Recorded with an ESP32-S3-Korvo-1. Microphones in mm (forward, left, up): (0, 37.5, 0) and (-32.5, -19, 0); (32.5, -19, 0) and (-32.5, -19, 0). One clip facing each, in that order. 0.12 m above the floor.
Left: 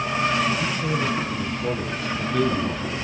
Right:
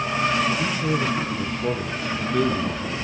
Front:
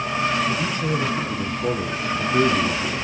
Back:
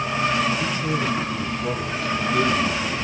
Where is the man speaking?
45° right, 2.5 m; by 3.0 s 35° right, 1.1 m.